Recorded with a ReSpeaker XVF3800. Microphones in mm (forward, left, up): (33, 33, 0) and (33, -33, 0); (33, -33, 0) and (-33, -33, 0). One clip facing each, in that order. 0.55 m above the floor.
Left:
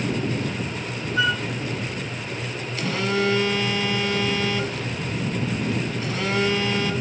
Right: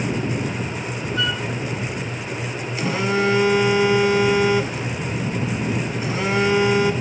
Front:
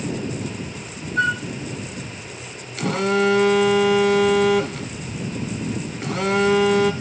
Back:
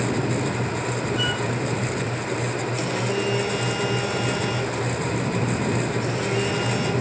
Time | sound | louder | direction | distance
1.2 | a flute | left 3 dB, front 4 dB | 20° left | 1.7 m
2.8 | a phone buzzing | right 3 dB, front 9 dB | 20° right | 1.0 m